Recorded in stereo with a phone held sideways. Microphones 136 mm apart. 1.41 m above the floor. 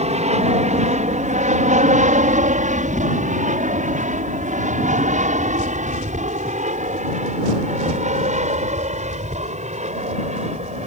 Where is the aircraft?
55° right (ahead or behind).